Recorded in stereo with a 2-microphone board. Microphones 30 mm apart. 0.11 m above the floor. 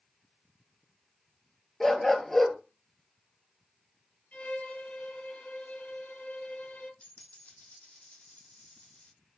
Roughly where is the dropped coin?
Left.